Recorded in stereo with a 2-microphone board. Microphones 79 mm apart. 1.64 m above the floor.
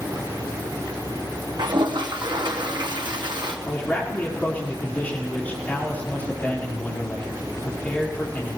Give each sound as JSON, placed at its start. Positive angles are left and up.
{"t": 1.6, "sound": "a toilet flushing", "side_deg": -70, "distance_m": 1.1}
{"t": 3.6, "sound": "a man speaking", "side_deg": 25, "distance_m": 4.5}